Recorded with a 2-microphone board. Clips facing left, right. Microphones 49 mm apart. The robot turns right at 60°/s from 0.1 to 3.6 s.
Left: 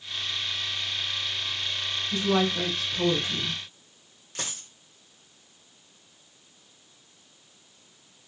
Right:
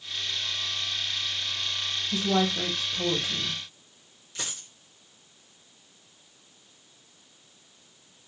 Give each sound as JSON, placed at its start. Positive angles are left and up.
{"t": 2.1, "sound": "a woman speaking", "azimuth_deg": 45, "distance_m": 2.5}
{"t": 4.3, "sound": "a dropped coin", "side_deg": 50, "distance_m": 2.0}